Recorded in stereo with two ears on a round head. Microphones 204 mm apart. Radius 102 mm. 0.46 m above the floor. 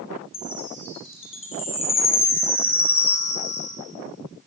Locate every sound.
0.3 s a chime: 30° left (ahead or behind), 5 m